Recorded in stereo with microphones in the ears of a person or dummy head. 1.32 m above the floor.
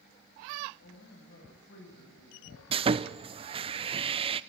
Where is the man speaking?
65° left (ahead or behind), 9 m.